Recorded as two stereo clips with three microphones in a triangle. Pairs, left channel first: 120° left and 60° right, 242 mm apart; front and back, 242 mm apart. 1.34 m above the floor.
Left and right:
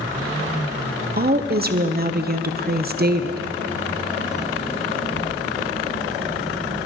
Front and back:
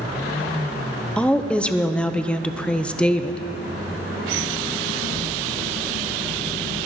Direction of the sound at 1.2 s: 85° right.